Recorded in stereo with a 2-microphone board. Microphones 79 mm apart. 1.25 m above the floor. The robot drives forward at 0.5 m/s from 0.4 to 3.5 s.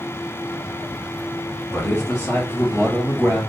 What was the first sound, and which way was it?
A man speaking, 30° left (ahead or behind).